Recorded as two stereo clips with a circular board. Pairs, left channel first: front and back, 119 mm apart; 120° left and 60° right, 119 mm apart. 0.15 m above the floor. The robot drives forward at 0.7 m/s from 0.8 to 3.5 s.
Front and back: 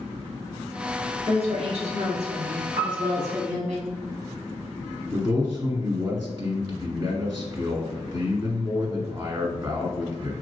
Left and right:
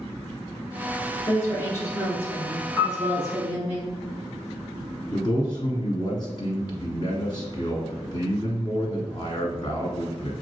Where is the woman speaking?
Straight behind, 1.6 m.